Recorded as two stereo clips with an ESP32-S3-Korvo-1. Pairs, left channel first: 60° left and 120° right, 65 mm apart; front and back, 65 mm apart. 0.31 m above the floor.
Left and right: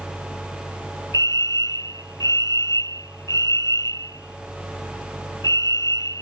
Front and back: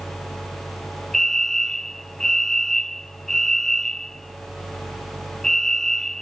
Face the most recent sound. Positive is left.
turn(degrees=85)